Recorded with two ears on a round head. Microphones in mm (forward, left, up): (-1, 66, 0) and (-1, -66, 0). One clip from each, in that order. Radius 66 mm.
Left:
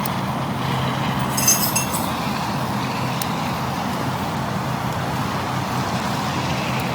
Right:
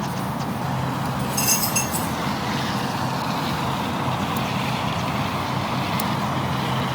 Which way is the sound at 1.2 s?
10° left (ahead or behind).